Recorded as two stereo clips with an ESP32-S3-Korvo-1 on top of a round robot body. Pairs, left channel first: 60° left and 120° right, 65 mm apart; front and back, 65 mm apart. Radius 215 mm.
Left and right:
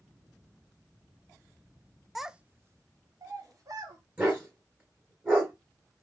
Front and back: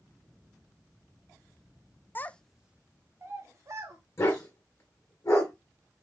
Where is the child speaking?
30° right, 0.6 m; by 4.0 s 145° right, 1.2 m.